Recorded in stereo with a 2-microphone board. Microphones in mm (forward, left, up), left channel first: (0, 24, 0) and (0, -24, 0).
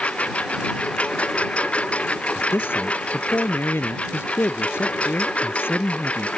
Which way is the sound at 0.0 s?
25° left (ahead or behind).